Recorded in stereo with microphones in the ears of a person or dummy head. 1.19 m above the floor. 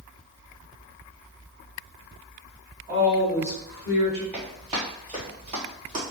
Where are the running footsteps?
5° right (ahead or behind), 1.3 m; by 6.1 s 30° right (ahead or behind), 1.8 m.